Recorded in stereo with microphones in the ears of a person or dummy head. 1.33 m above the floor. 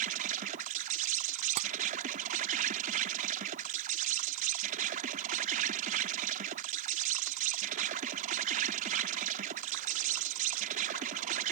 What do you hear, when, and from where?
0.0 s an insect: 40° right (ahead or behind)
1.6 s tapping: 40° right (ahead or behind)